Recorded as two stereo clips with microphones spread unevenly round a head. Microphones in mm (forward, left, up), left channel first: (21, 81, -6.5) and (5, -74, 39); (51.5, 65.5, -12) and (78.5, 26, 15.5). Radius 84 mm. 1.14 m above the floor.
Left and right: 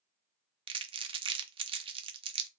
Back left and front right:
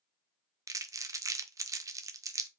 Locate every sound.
0.7 s crumpling: 30° right, 0.7 m